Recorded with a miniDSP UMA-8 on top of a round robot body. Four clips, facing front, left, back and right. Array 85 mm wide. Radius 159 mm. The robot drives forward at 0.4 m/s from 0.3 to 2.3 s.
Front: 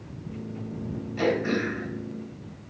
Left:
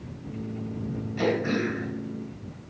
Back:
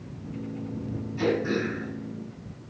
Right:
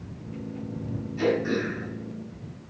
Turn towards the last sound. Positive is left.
turn(degrees=40)